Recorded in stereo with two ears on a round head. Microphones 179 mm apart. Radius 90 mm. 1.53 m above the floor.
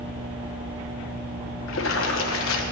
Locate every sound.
1.7 s a splash: 70° left (ahead or behind), 1.1 m